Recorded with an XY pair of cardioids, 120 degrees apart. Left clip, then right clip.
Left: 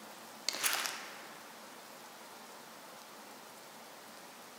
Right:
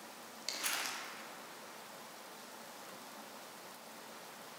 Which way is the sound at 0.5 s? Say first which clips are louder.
Left 3 dB; 35° left.